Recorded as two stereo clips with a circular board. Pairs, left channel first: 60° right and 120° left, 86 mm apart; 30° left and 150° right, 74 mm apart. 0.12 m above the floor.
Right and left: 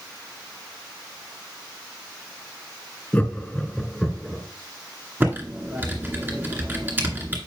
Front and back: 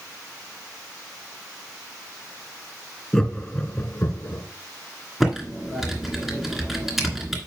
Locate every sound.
3.1 s laughter: 40° right, 1.1 m; by 4.4 s 35° left, 1.3 m
5.2 s typing on a keyboard: 130° left, 1.8 m